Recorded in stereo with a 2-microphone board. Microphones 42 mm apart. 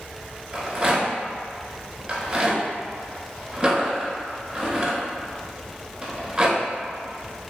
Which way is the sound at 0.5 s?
20° right (ahead or behind).